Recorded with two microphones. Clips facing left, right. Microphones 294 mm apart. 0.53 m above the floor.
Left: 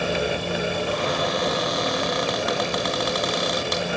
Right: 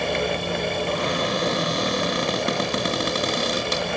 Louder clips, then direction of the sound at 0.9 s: Even; 35° right (ahead or behind).